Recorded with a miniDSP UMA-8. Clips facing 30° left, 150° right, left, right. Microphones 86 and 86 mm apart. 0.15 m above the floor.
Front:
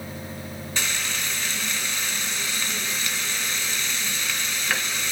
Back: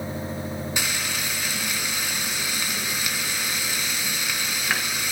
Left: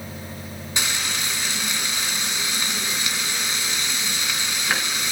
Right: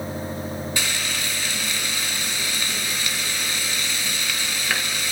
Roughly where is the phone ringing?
No phone ringing in this recording.